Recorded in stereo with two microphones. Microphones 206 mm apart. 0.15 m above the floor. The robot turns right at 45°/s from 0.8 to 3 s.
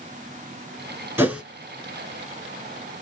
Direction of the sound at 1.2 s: 10° right (ahead or behind).